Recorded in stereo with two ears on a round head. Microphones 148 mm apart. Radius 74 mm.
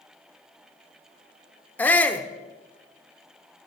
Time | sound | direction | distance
1.8 | a shout | 10° left (ahead or behind) | 0.8 m